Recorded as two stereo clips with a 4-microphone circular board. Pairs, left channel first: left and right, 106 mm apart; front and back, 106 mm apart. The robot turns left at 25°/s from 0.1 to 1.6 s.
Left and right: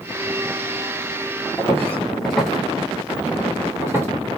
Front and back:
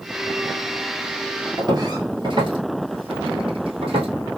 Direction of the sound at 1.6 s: 145° left.